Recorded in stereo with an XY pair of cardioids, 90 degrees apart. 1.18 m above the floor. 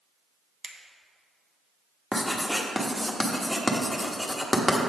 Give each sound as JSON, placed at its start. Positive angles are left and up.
{"t": 0.6, "sound": "a finger snap", "azimuth_deg": -40, "distance_m": 1.0}
{"t": 2.1, "sound": "writing", "azimuth_deg": 10, "distance_m": 1.1}